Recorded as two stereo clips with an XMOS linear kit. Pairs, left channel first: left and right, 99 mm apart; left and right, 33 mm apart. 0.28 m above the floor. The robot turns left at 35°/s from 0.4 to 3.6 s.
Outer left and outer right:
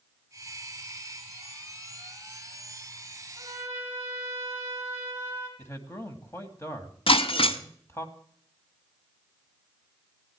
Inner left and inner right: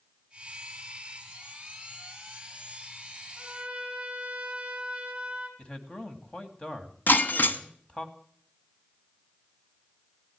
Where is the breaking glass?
70° left (ahead or behind), 1.0 m.